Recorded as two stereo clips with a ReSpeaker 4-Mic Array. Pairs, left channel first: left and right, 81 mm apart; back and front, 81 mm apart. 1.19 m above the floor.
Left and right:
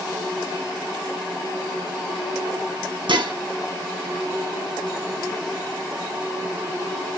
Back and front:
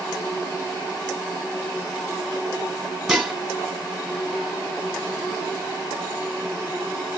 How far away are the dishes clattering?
About 1.0 m.